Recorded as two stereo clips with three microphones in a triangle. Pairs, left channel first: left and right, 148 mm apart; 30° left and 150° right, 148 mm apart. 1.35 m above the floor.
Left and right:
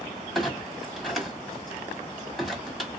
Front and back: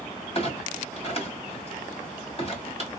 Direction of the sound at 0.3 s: Straight ahead.